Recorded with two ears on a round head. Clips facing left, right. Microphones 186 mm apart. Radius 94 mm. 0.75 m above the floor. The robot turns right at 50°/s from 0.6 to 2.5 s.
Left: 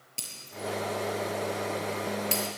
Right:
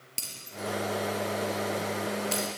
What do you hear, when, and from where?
0.2 s breaking glass: 20° right (ahead or behind), 6.5 m; by 2.5 s 75° left (ahead or behind), 6.5 m